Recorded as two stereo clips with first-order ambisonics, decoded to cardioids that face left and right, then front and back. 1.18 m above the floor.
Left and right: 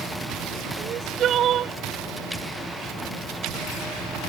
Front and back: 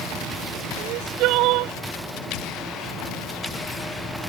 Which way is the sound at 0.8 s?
145° right.